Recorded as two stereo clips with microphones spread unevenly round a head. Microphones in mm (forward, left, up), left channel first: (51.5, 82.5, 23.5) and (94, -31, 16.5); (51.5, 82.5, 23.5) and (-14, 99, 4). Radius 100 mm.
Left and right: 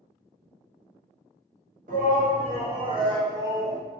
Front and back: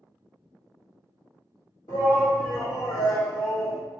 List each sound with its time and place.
1.9 s a shout: 55° right, 1.4 m; by 3.8 s 5° left, 1.4 m